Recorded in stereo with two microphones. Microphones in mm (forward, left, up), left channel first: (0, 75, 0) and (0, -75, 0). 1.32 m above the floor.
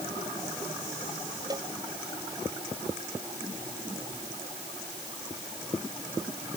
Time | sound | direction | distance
1.5 | a cowbell | 25° right (ahead or behind) | ?